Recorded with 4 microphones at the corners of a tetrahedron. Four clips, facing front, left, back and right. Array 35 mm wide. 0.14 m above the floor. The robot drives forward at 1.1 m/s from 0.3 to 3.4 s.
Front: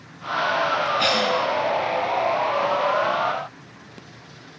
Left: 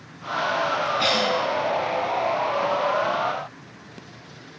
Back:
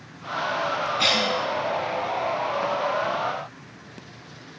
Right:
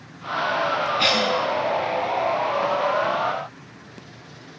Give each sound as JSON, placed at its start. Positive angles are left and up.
{"t": 1.0, "sound": "a cough", "azimuth_deg": -80, "distance_m": 1.2}